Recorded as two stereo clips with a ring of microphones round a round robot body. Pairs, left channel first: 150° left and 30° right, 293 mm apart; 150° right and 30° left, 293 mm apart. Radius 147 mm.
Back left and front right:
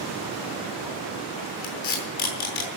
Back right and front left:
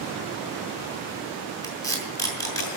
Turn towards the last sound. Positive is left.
turn(degrees=130)